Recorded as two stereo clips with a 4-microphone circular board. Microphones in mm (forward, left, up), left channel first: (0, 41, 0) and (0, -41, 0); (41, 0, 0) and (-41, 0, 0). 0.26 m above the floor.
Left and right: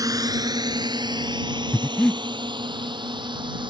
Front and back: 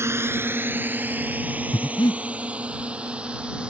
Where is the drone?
125° right; by 3.7 s 100° right.